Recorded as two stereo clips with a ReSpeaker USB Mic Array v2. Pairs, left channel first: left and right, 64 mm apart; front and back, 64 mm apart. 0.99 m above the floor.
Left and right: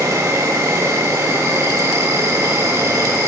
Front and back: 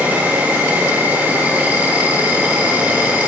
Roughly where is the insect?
Behind right.